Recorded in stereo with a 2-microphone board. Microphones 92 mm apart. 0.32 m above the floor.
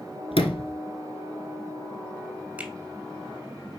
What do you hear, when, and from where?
0.3 s a sliding door: 85° left, 1.1 m
2.6 s a finger snap: 15° right (ahead or behind), 1.2 m